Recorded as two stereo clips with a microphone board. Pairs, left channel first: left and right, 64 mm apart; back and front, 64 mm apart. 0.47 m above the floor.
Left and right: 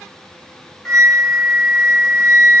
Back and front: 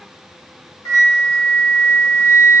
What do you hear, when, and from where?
0.8 s a flute: 175° left, 1.4 m